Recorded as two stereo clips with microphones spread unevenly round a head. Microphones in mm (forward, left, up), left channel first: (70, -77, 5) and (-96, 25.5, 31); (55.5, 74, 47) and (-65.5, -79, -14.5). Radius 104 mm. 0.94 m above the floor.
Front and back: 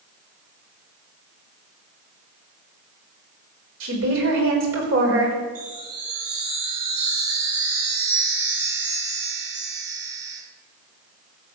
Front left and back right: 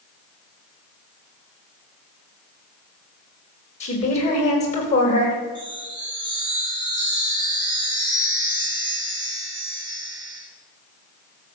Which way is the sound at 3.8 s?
115° left.